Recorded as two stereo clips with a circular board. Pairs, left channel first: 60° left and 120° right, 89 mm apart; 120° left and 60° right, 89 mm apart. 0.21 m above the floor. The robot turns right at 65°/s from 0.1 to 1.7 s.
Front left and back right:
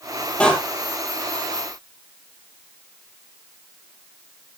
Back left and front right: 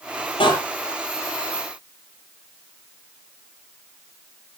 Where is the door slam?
135° left, 5 m; by 0.5 s 145° left, 5 m.